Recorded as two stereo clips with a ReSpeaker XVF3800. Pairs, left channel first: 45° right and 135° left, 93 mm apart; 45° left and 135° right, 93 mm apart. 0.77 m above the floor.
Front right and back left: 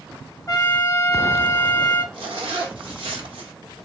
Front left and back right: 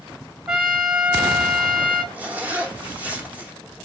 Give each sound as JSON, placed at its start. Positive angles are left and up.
{"t": 0.5, "sound": "a trumpet", "azimuth_deg": -65, "distance_m": 1.1}
{"t": 2.1, "sound": "a zipper", "azimuth_deg": 155, "distance_m": 1.1}